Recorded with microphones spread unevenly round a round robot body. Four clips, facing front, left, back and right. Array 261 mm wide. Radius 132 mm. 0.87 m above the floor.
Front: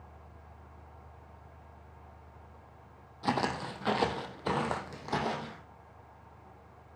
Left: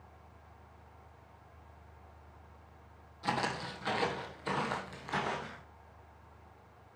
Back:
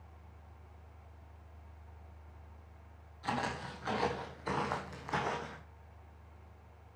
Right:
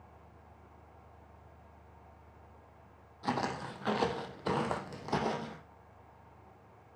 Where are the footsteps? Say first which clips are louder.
Even, front 5 dB; 10° right, 1.8 m; by 5.6 s 70° right, 2.0 m.